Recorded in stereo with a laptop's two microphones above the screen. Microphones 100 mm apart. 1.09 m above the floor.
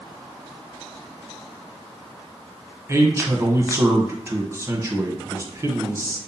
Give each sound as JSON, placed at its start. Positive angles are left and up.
{"t": 2.9, "sound": "a man speaking", "side_deg": -25, "distance_m": 0.8}